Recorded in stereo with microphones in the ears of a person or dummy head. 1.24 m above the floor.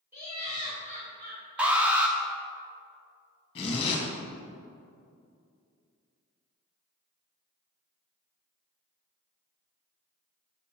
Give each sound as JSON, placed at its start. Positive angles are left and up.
{"t": 0.1, "sound": "laughter", "side_deg": -10, "distance_m": 1.5}
{"t": 1.6, "sound": "an alarm", "side_deg": -5, "distance_m": 0.7}
{"t": 3.5, "sound": "a zipper", "side_deg": 35, "distance_m": 1.4}